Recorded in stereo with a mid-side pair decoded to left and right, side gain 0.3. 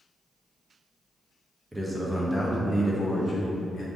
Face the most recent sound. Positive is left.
turn(degrees=60)